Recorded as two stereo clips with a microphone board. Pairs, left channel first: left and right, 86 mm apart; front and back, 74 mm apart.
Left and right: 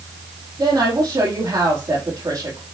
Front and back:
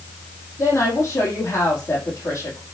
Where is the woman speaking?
50° right, 4.5 m.